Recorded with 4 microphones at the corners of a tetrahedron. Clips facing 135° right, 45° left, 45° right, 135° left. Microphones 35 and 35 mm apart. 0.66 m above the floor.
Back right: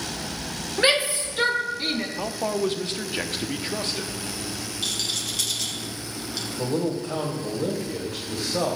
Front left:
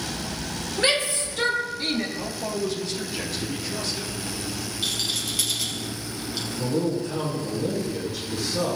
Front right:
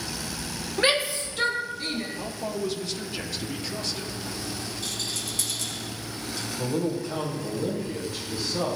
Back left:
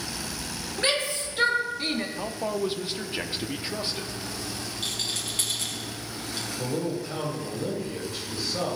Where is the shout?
85° right, 0.8 m; by 2.1 s 145° left, 0.9 m.